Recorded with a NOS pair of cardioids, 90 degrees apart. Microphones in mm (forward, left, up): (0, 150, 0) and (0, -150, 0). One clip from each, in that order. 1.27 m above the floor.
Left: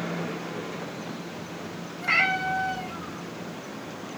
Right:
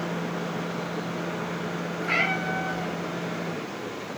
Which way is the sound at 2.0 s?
40° left.